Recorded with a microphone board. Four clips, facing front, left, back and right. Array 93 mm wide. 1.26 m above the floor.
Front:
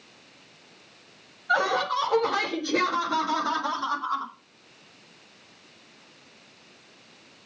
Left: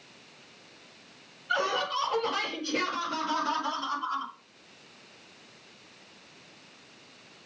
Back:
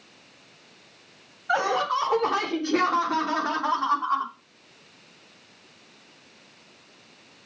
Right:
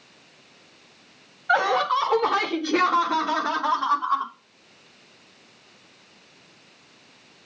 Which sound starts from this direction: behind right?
Laughter, at 1.5 s.